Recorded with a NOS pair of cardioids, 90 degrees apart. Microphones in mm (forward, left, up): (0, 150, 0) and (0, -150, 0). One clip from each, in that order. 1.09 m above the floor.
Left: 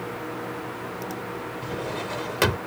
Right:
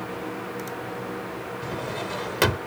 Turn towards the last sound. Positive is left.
turn(degrees=-5)